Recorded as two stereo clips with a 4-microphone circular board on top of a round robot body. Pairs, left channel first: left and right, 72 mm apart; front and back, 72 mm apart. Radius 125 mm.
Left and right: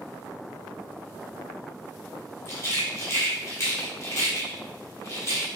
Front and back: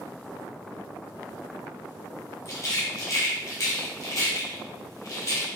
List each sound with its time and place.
2.5 s a rattle: 45° left, 1.2 m